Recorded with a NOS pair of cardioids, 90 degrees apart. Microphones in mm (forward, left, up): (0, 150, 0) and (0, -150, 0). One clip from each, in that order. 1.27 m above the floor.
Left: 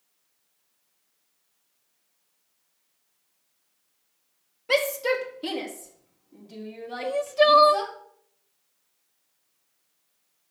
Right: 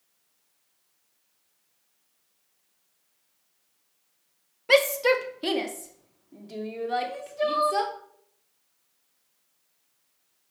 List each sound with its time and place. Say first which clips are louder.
4.7 s a shout: right 3 dB; 20° right, 1.6 m; by 7.9 s 35° right, 4 m
7.0 s crying: left 9 dB; 60° left, 0.9 m